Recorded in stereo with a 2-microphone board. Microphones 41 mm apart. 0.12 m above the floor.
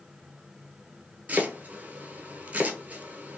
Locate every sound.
1.3 s chopping: 35° right (ahead or behind), 0.6 m